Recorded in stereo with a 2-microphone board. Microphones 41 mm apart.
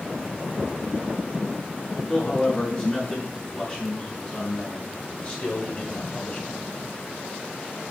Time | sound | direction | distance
2.1 | a man speaking | 25° left (ahead or behind) | 5 m